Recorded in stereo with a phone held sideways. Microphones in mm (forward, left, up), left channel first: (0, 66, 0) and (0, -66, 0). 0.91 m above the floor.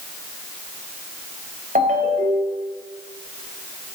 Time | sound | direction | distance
1.8 | a ringtone | 80° right | 3 m